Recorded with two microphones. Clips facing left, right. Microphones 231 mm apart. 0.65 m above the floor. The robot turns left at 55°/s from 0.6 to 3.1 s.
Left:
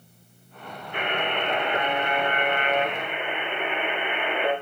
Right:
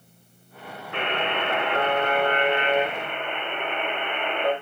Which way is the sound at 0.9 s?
65° right.